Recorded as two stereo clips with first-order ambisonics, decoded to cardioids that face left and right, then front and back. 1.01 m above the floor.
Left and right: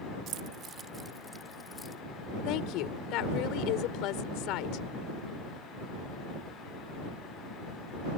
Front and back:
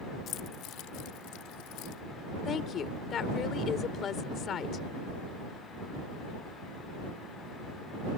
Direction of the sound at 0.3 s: 50° right.